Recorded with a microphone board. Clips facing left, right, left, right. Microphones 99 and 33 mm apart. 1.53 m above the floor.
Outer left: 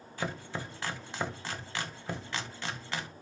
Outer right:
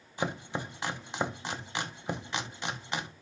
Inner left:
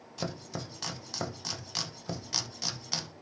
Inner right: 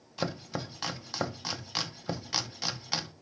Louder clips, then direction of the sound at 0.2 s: Outer right 3 dB, inner right 3 dB; 20° right (ahead or behind).